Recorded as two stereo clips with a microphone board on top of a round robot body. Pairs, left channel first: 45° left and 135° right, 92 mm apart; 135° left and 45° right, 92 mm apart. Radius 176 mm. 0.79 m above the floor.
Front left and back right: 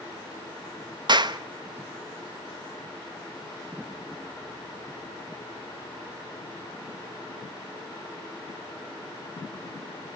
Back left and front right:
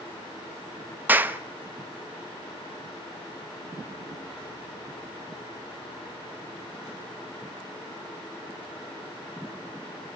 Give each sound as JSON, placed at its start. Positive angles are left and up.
{"t": 1.1, "sound": "a clap", "azimuth_deg": -110, "distance_m": 1.1}